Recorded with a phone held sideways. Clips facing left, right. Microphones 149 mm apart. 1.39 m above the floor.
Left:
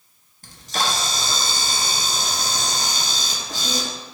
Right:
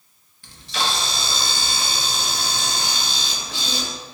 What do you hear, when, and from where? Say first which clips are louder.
0.4 s a camera shutter: left 1 dB; 40° left (ahead or behind), 0.5 m